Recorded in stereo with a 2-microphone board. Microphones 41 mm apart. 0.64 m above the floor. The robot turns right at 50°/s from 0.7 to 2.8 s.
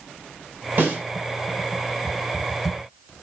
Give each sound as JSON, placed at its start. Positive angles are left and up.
{"t": 0.8, "sound": "a snare drum", "side_deg": -50, "distance_m": 3.5}